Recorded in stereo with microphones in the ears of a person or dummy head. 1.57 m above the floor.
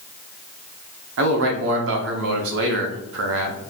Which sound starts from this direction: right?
A man speaking, at 1.2 s.